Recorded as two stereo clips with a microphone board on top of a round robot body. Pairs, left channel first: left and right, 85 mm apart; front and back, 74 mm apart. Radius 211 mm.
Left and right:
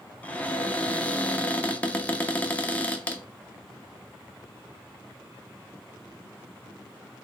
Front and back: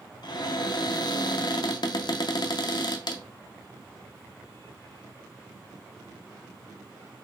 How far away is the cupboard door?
About 0.7 m.